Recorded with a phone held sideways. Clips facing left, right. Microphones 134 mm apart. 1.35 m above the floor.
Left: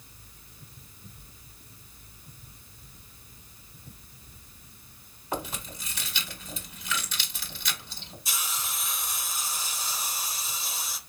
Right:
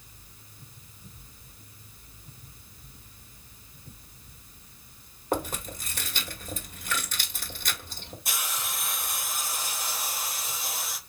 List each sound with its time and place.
5.3 s chewing: 50° right (ahead or behind), 1.7 m
8.2 s a hiss: 55° right (ahead or behind), 1.1 m